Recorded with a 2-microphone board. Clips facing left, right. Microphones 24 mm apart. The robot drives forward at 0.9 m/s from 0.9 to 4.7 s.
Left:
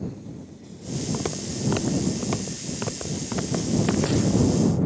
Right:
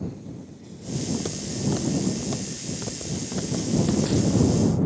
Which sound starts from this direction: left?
Footsteps, at 1.1 s.